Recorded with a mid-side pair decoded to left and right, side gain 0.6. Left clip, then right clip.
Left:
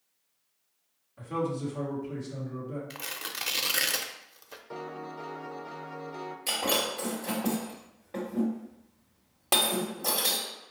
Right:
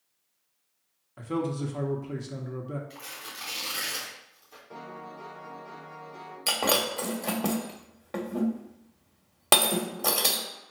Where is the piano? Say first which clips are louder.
Left 3 dB; 30° left, 0.8 m.